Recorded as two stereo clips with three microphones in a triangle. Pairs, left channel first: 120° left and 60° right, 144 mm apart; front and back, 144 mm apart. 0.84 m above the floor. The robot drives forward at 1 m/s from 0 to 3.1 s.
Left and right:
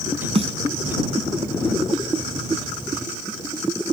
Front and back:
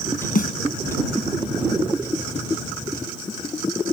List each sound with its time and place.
0.3 s a snare drum: 15° right